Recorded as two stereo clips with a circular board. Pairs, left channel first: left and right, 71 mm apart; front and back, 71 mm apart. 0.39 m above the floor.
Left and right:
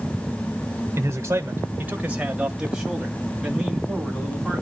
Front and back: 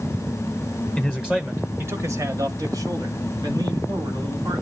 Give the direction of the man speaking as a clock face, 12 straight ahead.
3 o'clock.